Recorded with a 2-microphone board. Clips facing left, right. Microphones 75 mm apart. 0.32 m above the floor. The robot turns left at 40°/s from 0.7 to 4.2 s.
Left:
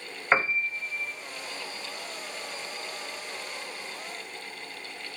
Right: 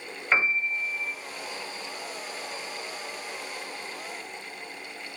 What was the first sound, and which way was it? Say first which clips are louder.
A piano: even; 30° left (ahead or behind).